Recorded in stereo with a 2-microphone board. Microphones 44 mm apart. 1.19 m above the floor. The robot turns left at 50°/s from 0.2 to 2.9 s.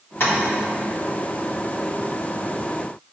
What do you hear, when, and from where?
0.2 s tapping: 80° left, 2 m; by 0.3 s 75° left (ahead or behind), 2 m